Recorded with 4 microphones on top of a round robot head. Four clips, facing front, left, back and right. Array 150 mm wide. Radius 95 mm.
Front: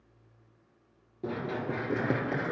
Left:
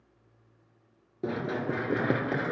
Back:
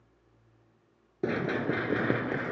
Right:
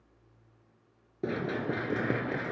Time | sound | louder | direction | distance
1.2 | running footsteps | left 1 dB, back 4 dB | 170° left | 1.2 m